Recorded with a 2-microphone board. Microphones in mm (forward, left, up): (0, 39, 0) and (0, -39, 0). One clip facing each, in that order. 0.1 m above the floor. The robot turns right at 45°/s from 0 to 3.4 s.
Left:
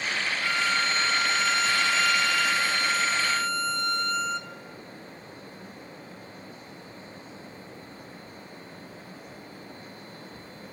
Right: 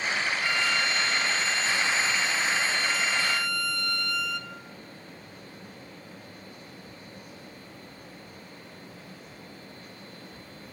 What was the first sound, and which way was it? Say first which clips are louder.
A violin: left 3 dB; 15° left.